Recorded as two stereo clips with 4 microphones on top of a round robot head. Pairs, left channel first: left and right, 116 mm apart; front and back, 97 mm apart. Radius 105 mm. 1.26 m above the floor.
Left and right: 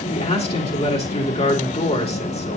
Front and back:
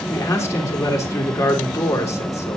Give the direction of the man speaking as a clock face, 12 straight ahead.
10 o'clock.